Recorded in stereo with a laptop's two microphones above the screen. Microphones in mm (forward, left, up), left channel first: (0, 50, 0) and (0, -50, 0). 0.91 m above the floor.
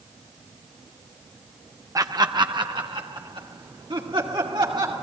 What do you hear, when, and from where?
1.9 s laughter: 35° right (ahead or behind), 0.6 m; by 4.9 s 55° right (ahead or behind), 2.5 m